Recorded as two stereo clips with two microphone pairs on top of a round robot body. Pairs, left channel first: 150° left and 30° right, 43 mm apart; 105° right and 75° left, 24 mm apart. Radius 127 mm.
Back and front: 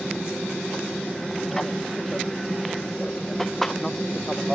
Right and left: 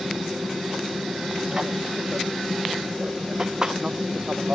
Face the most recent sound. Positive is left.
turn(degrees=80)